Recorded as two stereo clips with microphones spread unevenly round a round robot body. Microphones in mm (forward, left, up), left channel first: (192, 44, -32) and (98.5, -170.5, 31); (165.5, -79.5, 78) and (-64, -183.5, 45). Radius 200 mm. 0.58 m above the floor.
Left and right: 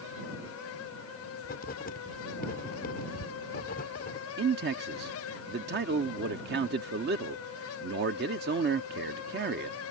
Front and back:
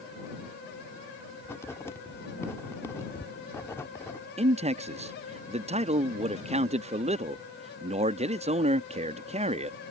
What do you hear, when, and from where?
1.4 s writing: 110° left
4.4 s a man speaking: 150° right